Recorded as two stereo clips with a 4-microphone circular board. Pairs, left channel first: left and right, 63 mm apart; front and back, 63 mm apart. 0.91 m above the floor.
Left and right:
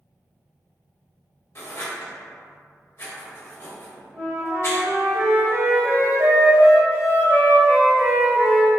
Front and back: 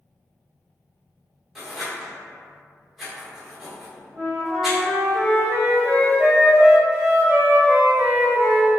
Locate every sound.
1.6 s writing: 90° left, 1.2 m
4.1 s a flute: 130° right, 1.6 m